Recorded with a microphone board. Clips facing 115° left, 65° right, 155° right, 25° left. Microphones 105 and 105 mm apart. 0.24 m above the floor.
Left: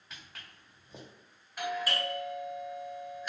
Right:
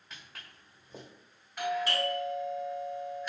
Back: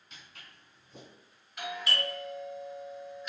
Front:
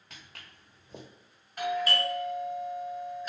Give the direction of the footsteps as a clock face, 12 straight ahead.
11 o'clock.